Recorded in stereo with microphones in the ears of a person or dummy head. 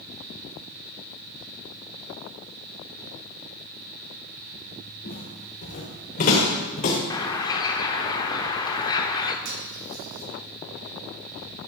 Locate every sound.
5.0 s footsteps: 50° left (ahead or behind), 5.5 m; by 7.0 s 40° left (ahead or behind), 4.5 m
7.1 s a bird: 25° left (ahead or behind), 0.9 m
9.4 s cutlery clinking: 70° right (ahead or behind), 6 m